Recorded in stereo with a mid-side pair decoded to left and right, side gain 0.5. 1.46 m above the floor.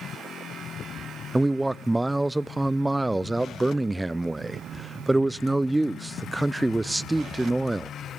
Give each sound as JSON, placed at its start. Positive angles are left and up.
{"t": 1.3, "sound": "a man speaking", "azimuth_deg": -10, "distance_m": 0.6}